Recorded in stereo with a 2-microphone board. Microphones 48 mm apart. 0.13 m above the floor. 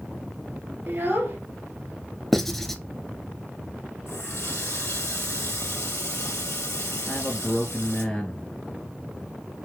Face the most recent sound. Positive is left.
turn(degrees=5)  # may be behind; listen again after turning